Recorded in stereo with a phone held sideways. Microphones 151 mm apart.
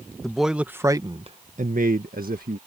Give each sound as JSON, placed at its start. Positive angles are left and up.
{"t": 0.2, "sound": "a man speaking", "side_deg": 5}